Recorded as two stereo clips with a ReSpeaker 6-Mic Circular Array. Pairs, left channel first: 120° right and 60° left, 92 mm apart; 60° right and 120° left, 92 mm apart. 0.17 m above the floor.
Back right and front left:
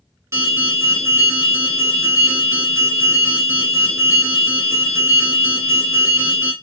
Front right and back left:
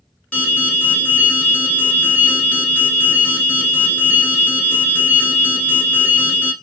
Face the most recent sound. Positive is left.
turn(degrees=10)